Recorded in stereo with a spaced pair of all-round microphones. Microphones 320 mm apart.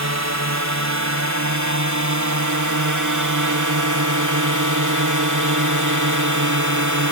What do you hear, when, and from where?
0.0 s a drone: 55° right (ahead or behind); by 7.1 s 60° right (ahead or behind)